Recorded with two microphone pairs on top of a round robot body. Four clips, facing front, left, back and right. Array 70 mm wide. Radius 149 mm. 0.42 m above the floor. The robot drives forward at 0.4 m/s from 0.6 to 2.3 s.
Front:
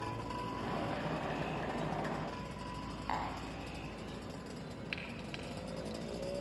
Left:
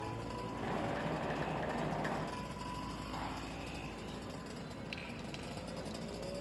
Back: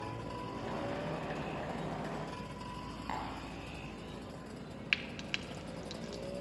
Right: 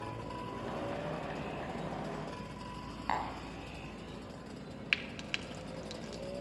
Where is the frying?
120° right, 1.5 m.